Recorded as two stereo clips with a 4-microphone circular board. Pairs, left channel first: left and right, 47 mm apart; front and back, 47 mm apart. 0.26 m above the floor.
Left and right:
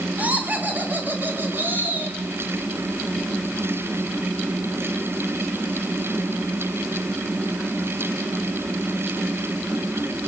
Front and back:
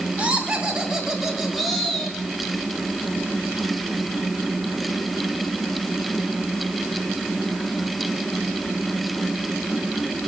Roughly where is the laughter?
Behind right.